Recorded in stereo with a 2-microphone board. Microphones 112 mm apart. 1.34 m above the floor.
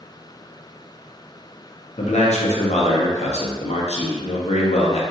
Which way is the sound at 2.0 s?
85° left.